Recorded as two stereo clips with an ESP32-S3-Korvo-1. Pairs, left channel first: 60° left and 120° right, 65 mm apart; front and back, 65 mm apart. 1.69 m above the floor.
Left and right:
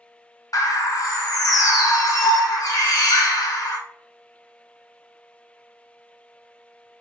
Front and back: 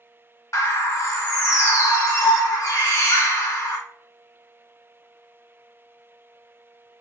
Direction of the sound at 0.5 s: 40° left.